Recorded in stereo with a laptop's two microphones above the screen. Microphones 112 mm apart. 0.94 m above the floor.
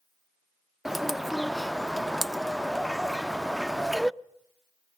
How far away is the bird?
About 0.5 m.